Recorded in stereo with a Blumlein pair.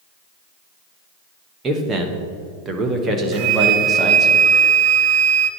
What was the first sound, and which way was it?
A man speaking, 20° right.